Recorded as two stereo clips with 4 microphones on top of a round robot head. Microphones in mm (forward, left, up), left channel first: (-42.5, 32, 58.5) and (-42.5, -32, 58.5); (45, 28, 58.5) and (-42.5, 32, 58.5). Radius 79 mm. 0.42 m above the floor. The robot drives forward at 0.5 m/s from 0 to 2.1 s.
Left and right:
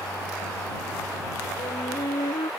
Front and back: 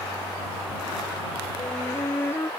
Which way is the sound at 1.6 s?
60° left.